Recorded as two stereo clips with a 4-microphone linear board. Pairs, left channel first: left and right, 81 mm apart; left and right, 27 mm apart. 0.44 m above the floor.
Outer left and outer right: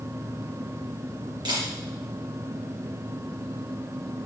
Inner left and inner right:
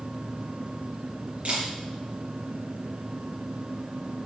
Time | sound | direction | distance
1.4 | a camera shutter | 65° right (ahead or behind) | 4 m